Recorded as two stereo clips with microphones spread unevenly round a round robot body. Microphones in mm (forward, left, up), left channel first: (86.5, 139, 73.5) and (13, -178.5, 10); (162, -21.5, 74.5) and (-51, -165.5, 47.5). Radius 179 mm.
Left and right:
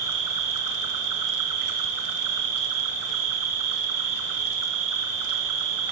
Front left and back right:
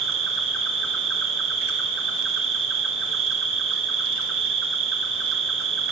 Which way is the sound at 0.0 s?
115° right.